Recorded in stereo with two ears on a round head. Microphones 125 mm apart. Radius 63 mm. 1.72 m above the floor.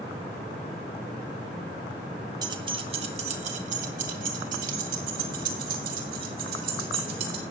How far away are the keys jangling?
About 1.1 m.